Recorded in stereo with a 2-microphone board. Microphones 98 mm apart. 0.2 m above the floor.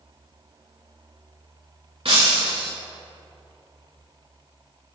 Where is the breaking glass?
75° right (ahead or behind), 3 m.